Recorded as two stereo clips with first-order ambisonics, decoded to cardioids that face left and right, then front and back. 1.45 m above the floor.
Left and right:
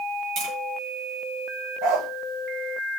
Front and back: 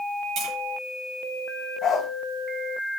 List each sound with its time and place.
0.4 s tapping: 135° right, 7 m
1.8 s a dog barking: 65° right, 2.5 m